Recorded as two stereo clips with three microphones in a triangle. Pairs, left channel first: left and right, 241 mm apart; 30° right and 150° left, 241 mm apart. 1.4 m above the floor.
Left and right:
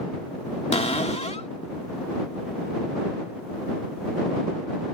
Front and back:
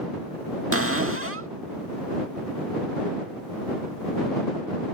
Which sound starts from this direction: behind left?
A cupboard door, at 0.7 s.